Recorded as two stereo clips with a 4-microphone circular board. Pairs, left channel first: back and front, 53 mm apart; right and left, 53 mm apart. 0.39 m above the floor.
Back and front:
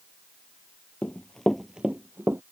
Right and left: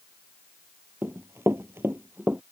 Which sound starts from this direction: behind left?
Running footsteps, at 1.0 s.